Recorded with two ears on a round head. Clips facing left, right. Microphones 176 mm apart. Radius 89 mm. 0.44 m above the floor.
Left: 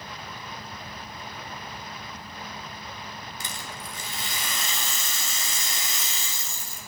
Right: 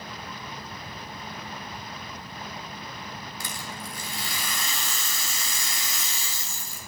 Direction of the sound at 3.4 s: 20° left (ahead or behind).